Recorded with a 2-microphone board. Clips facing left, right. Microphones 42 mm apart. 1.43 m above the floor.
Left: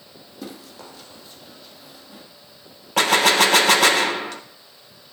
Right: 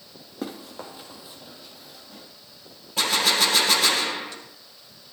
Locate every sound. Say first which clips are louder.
0.4 s running footsteps: right 3 dB; 40° right (ahead or behind), 2.5 m; by 2.2 s 10° left (ahead or behind), 2.5 m
3.0 s a gunshot: left 6 dB; 60° left (ahead or behind), 1.0 m